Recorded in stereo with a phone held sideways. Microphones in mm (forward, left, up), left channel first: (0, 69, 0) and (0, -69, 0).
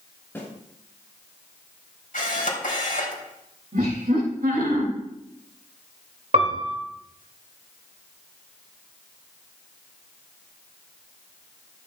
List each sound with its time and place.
0.3 s a snare drum: 15° left (ahead or behind), 7 m
2.1 s a camera shutter: 75° left (ahead or behind), 3 m
3.7 s laughter: 85° right, 2 m
6.3 s a piano: 60° right (ahead or behind), 1.9 m